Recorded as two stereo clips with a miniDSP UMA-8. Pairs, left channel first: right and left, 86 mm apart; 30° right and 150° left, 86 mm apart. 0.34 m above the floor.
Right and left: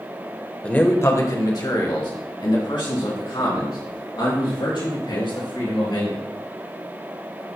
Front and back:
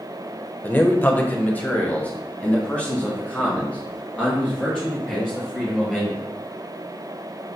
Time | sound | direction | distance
0.6 | a man speaking | 40° right | 1.0 m